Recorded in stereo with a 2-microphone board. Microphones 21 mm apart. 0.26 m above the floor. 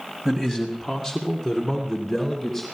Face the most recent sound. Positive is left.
turn(degrees=-10)  # may be behind; listen again after turning